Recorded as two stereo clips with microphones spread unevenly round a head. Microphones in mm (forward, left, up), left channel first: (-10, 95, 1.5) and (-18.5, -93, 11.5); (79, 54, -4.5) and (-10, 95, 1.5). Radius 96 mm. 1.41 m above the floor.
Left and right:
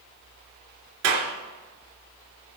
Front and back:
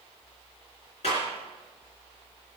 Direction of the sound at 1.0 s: 75° right.